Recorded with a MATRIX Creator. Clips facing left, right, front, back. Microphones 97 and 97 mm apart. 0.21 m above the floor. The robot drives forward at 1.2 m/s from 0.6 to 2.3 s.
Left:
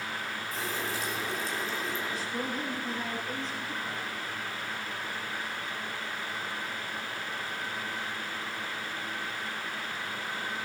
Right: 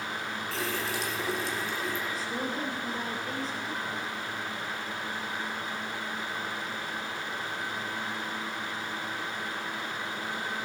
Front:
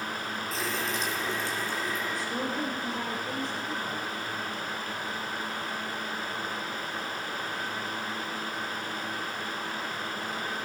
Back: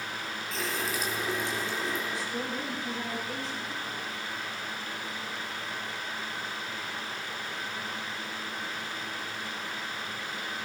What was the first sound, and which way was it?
A running tap, 85° right.